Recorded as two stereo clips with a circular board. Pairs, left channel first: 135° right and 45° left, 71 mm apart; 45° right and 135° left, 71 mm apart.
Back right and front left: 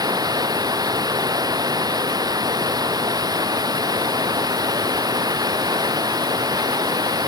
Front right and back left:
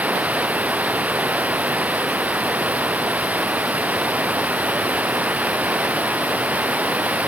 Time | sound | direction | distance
0.0 | running water | 65° left | ?